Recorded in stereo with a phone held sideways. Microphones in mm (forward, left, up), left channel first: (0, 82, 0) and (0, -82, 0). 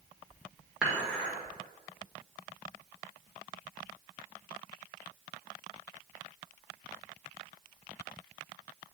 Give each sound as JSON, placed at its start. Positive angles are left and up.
{"t": 0.8, "sound": "dishes clattering", "side_deg": -5, "distance_m": 1.8}